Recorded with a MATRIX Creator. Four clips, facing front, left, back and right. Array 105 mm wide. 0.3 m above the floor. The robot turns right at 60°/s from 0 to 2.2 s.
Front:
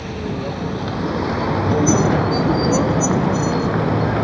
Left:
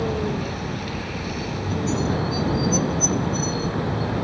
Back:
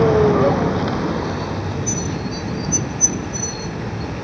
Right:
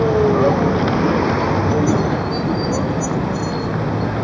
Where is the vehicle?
155° right; by 4.2 s 20° right.